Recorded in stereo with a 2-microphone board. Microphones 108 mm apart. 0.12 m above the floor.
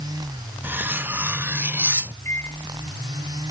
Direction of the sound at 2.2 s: 20° left (ahead or behind).